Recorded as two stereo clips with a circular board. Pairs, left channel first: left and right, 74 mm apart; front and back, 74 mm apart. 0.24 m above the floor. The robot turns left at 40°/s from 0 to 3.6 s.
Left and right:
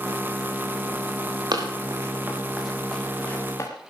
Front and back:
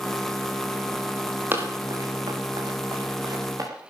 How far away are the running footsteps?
About 4.5 m.